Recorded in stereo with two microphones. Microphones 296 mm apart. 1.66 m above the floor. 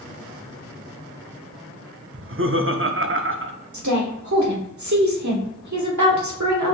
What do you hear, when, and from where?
2.1 s laughter: 45° right (ahead or behind), 0.5 m
3.7 s a woman speaking: 70° right (ahead or behind), 1.1 m